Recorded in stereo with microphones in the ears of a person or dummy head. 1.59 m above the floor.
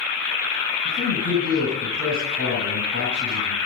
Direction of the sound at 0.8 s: 85° left.